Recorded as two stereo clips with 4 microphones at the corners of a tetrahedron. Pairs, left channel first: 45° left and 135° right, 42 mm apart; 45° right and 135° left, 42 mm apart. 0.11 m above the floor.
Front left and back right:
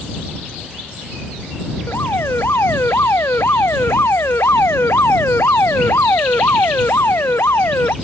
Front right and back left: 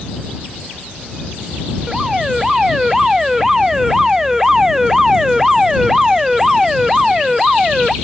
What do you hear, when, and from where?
1.9 s an alarm: 55° left